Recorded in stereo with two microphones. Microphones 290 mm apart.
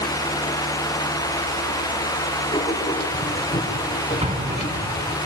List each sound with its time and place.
2.5 s writing: 25° left (ahead or behind), 4 m
4.2 s an explosion: 25° right (ahead or behind), 1.7 m